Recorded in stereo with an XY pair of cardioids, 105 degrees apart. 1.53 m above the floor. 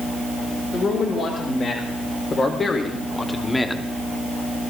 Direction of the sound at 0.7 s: 55° left.